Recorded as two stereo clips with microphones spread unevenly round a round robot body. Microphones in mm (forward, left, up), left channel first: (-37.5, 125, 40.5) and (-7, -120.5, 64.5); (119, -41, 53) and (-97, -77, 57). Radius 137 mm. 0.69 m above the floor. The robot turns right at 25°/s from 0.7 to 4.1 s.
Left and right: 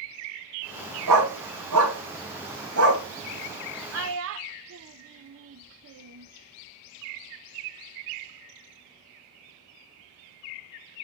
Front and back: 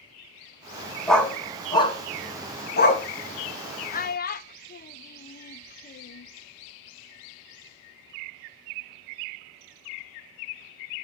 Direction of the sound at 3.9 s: 45° right.